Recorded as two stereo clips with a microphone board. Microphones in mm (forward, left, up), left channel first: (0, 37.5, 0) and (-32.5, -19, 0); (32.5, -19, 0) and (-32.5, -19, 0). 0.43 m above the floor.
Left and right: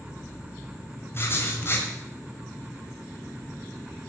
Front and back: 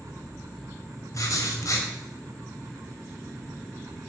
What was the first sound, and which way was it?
Writing, 15° left.